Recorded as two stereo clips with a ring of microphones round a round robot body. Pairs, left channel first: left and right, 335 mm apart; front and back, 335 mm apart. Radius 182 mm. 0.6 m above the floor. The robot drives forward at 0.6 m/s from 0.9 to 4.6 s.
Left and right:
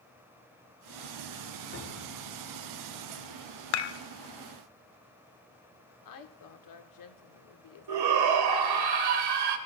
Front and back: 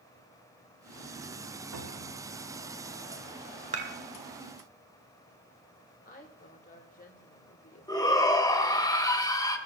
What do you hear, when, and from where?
1.7 s a cupboard door: 155° left, 4 m
3.7 s dishes clattering: 105° left, 1.0 m; by 4.0 s 115° left, 1.0 m
6.0 s a woman speaking: 65° left, 1.5 m
7.9 s a shout: 80° right, 2 m